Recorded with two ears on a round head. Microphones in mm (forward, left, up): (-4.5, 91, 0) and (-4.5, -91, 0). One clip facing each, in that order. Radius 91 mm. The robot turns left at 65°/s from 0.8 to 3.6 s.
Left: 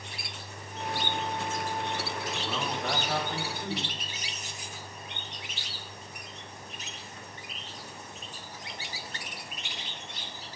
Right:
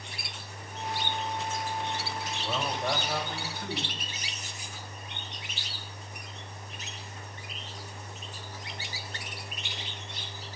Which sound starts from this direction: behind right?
A man speaking, at 2.4 s.